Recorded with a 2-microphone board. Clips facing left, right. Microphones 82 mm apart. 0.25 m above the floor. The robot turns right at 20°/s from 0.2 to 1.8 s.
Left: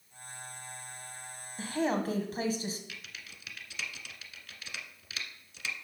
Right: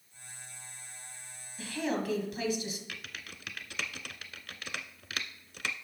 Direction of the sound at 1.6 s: 40° left (ahead or behind).